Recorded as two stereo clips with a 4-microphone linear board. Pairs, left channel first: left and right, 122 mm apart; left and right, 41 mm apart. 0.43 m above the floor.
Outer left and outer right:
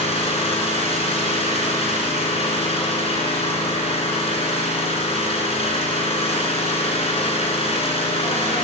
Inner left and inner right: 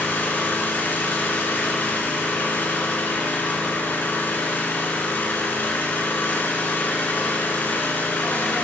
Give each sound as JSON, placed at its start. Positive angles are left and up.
{"t": 0.0, "sound": "an engine running", "side_deg": 55, "distance_m": 2.5}